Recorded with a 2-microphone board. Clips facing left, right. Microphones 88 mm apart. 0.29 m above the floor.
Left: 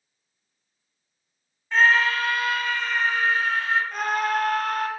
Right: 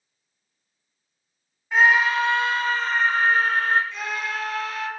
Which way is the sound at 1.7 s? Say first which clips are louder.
Right 1 dB; 10° right (ahead or behind).